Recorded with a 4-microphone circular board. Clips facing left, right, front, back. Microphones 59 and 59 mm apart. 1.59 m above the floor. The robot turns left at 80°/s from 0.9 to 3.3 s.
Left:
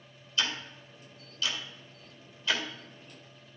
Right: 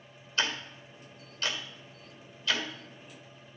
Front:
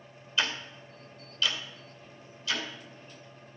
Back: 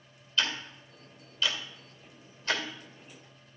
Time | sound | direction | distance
0.4 | ticking | 80° right | 1.9 m